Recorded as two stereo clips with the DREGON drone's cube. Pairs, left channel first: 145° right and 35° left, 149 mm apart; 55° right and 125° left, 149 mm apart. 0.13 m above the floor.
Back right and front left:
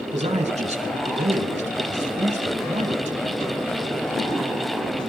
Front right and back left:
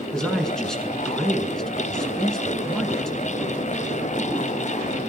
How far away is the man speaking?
About 2.5 m.